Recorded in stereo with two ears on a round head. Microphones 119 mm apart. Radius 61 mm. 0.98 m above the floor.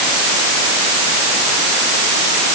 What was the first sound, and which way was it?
Only background noise.